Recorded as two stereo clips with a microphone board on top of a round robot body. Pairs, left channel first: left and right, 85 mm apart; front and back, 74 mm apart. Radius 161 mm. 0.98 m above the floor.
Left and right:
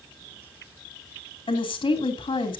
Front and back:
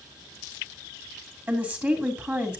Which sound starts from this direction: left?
A woman speaking, at 1.5 s.